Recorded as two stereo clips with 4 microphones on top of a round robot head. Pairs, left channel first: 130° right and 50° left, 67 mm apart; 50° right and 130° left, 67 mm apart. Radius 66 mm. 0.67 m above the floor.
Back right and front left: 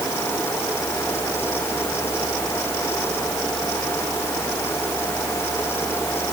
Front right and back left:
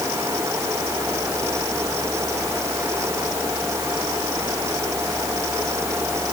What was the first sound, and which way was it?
Only background noise.